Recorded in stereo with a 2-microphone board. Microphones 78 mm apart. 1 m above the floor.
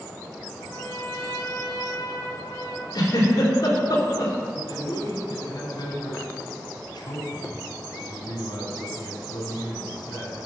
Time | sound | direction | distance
0.6 | a trumpet | 45° left (ahead or behind) | 1.6 m
2.9 | a giggle | 50° left (ahead or behind) | 3 m
4.6 | a man speaking | 70° left (ahead or behind) | 3 m